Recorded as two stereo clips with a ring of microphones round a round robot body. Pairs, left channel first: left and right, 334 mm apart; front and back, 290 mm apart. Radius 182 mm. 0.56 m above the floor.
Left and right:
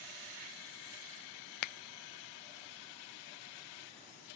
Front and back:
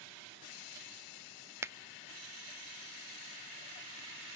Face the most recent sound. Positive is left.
turn(degrees=100)